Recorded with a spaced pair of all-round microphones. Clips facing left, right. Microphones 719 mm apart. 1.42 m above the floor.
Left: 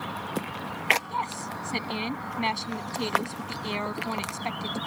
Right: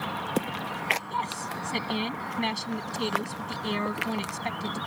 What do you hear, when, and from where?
1.1 s a woman speaking: 45° right (ahead or behind)